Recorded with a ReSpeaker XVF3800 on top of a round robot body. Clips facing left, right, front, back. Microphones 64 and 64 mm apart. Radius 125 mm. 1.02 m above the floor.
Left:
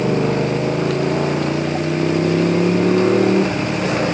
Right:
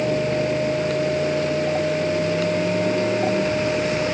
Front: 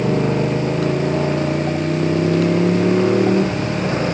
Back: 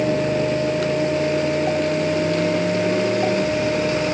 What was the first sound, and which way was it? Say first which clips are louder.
A motorcycle: left 3 dB, front 1 dB; 55° left.